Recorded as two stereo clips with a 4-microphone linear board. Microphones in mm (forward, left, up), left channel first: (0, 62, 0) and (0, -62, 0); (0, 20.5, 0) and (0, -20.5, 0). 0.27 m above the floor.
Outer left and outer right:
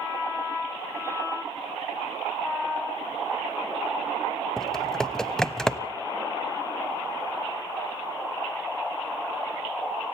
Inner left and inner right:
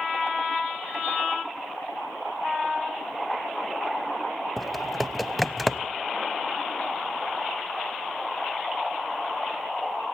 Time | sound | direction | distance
4.6 | typing on a keyboard | 5° left (ahead or behind) | 0.7 m